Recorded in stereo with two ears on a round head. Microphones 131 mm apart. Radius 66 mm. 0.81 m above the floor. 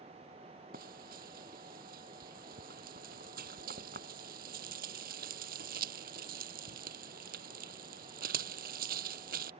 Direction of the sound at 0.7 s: 65° right (ahead or behind).